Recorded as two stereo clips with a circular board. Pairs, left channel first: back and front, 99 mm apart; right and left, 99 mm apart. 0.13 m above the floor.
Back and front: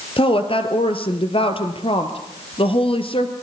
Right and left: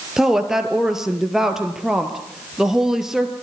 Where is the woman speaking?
175° left, 3 m.